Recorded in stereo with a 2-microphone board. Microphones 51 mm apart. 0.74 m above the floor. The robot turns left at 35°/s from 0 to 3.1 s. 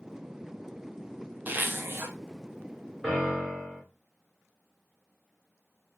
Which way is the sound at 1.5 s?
35° right (ahead or behind).